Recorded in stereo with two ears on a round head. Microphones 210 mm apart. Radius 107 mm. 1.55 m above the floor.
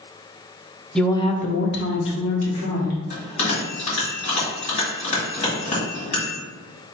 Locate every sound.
0.9 s a woman speaking: centre (ahead or behind), 0.5 m; by 3.0 s 70° left (ahead or behind), 1.5 m
3.1 s a bell: 30° left (ahead or behind), 1.9 m